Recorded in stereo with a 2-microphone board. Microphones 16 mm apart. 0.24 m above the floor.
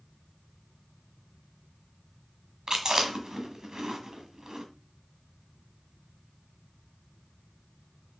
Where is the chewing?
45° right (ahead or behind), 1.2 m.